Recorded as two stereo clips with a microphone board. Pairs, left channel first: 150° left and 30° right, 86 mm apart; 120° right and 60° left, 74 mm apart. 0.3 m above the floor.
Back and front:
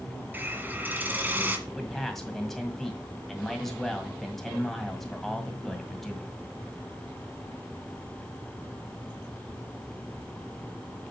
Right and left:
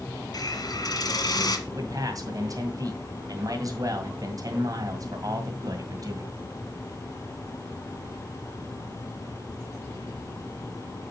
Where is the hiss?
100° right, 1.7 m.